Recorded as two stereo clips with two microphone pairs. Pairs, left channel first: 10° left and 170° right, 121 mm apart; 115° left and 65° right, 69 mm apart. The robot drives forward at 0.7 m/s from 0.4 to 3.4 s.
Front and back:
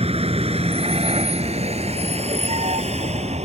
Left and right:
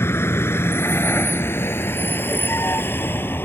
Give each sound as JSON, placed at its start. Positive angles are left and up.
{"t": 0.0, "sound": "a vehicle", "azimuth_deg": 165}